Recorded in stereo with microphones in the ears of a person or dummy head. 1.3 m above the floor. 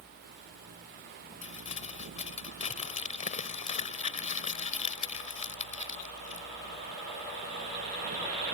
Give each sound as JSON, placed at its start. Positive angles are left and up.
{"t": 1.4, "sound": "crumpling", "side_deg": 45}